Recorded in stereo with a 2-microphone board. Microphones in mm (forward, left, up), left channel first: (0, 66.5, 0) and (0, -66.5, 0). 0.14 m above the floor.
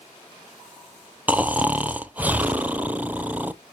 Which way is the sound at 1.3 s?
10° right (ahead or behind).